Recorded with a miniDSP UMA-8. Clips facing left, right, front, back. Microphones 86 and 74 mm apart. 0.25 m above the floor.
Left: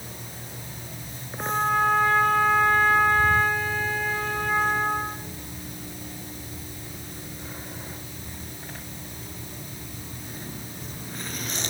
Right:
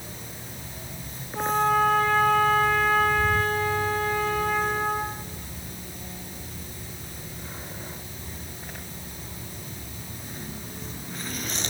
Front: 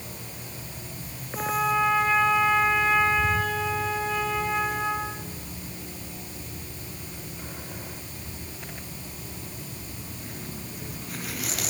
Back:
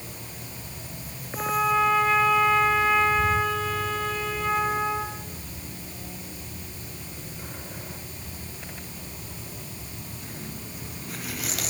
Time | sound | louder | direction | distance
1.4 | a trumpet | right 2 dB, back 1 dB | 85° right | 7.5 m